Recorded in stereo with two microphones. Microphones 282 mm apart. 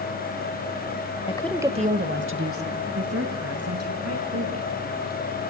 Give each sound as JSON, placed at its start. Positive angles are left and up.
{"t": 1.3, "sound": "a woman speaking", "side_deg": 20, "distance_m": 0.9}